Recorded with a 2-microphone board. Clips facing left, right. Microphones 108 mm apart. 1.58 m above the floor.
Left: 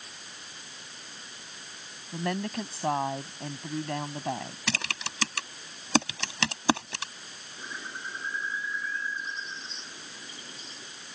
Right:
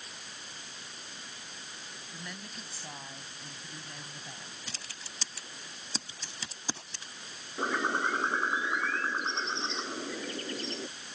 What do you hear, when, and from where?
2.1 s a woman speaking: 70° left (ahead or behind)
4.7 s typing on a keyboard: 90° left
7.6 s a bird: 75° right (ahead or behind)